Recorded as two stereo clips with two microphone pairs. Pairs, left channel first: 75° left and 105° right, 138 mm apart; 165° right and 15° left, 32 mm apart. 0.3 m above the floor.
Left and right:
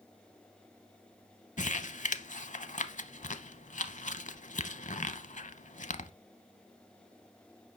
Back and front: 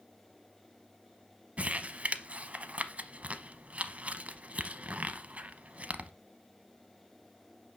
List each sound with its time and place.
1.6 s crumpling: 55° left, 0.7 m